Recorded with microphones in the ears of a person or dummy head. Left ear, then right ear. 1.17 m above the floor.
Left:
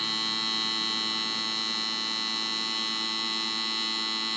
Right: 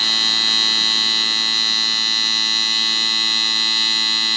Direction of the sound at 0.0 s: 30° right (ahead or behind).